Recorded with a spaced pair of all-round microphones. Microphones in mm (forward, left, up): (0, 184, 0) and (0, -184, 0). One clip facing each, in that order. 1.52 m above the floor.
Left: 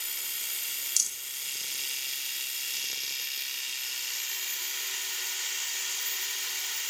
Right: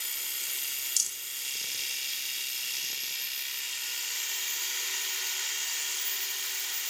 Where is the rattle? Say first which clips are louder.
Even; 35° left (ahead or behind), 0.8 m.